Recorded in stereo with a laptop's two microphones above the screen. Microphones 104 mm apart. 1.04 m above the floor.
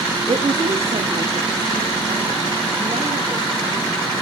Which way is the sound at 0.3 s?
70° right (ahead or behind).